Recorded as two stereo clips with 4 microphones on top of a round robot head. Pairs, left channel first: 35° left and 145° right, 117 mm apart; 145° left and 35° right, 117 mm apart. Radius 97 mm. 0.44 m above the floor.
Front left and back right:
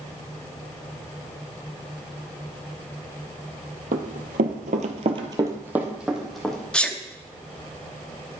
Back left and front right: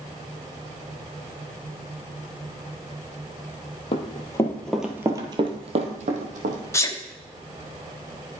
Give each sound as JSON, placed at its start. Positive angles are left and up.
{"t": 3.9, "sound": "running footsteps", "azimuth_deg": -165, "distance_m": 1.1}
{"t": 6.7, "sound": "a sneeze", "azimuth_deg": 110, "distance_m": 1.0}